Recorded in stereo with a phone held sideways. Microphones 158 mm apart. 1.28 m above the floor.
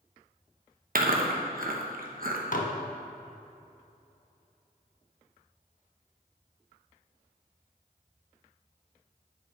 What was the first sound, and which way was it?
Chewing, 65° right (ahead or behind).